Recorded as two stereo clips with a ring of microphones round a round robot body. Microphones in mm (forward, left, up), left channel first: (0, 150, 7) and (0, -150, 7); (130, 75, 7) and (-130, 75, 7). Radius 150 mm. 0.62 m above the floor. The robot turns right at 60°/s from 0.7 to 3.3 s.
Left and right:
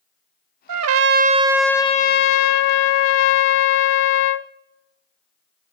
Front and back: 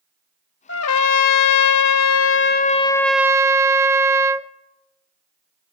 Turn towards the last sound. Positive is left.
turn(degrees=100)